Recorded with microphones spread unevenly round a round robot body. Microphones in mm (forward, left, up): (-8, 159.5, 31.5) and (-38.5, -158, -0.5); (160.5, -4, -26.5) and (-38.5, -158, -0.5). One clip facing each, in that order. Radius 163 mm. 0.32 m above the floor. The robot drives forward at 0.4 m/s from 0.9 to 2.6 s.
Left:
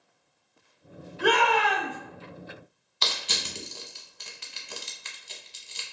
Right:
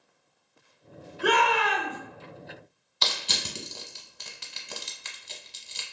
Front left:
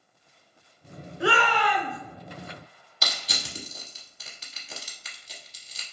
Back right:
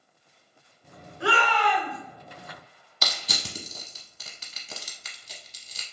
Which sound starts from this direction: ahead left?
A shout, at 1.2 s.